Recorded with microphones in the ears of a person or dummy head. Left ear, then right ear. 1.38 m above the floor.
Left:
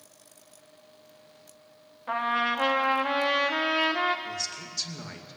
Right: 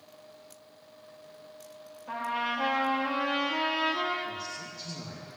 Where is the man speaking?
55° left (ahead or behind), 2.5 m.